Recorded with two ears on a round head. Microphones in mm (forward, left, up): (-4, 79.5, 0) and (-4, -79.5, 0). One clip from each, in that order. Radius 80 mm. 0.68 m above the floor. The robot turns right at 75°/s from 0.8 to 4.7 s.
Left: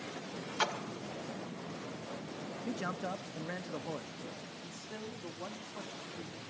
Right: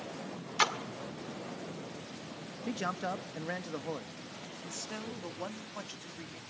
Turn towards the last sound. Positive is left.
turn(degrees=-55)  # may be behind; listen again after turning